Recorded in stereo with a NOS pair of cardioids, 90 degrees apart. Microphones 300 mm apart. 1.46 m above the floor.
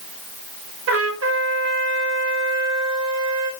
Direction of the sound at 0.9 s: 55° right.